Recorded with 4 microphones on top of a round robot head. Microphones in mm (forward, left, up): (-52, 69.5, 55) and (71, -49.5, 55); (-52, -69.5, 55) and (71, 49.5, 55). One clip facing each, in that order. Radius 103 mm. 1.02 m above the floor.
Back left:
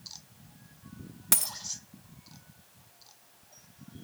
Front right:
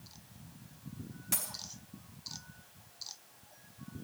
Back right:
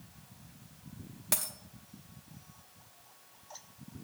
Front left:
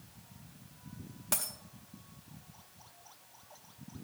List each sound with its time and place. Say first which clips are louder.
1.3 s a dropped coin: back left 6 dB, even; 140° left, 0.7 m